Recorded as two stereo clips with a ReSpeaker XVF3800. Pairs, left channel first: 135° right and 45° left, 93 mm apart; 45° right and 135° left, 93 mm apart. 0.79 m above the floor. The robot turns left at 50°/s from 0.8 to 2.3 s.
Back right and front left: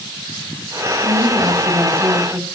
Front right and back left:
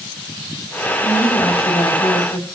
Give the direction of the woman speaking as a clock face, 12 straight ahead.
11 o'clock.